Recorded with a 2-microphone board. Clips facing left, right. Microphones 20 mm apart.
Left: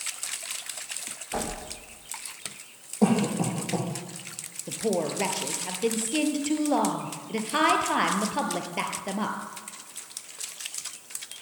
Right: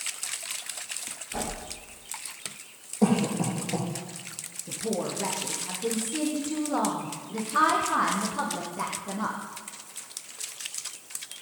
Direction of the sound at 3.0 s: 15° left (ahead or behind).